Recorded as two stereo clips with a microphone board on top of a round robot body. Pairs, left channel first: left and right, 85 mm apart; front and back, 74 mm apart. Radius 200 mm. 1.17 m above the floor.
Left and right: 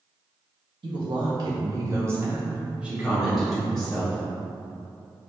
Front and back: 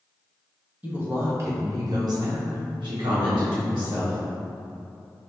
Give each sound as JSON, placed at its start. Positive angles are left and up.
{"t": 0.8, "sound": "a woman speaking", "azimuth_deg": -110, "distance_m": 1.0}